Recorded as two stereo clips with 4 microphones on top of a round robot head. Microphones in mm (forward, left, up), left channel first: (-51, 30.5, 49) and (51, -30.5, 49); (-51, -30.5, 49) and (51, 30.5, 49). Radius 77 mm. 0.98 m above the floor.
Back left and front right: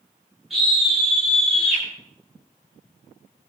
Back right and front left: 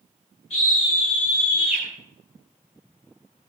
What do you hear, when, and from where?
0.5 s a scream: 120° right, 8.5 m